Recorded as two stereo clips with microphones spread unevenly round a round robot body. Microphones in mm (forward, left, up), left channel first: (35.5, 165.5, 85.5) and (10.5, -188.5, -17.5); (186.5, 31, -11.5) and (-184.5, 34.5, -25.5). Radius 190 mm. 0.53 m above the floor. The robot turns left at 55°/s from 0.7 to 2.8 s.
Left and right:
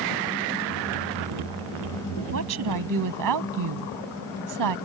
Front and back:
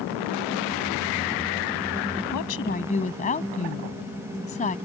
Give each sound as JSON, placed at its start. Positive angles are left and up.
{"t": 2.3, "sound": "a woman speaking", "azimuth_deg": -45}